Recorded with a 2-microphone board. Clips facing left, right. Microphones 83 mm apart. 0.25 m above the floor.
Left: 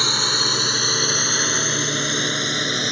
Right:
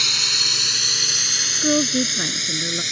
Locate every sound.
0.0 s a drone: 40° left (ahead or behind); by 2.9 s 50° left (ahead or behind)
1.6 s a woman speaking: 65° right (ahead or behind)